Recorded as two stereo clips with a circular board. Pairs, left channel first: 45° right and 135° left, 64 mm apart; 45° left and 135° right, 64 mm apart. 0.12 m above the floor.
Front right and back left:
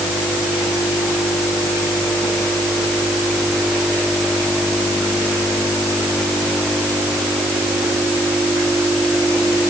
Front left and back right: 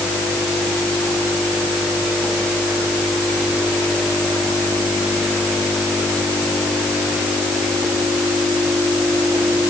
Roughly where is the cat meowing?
No cat meowing in this recording.